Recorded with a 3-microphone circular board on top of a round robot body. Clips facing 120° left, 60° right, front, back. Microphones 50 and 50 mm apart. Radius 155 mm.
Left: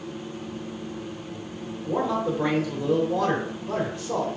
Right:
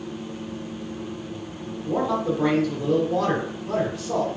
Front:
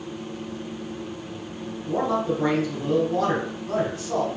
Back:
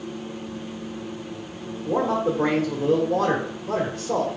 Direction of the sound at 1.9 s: 155° right.